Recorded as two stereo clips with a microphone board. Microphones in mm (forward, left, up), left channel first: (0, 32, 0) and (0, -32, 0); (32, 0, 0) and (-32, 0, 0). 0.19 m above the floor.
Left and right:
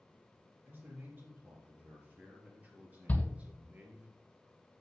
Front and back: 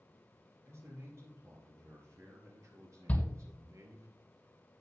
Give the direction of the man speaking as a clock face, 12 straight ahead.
5 o'clock.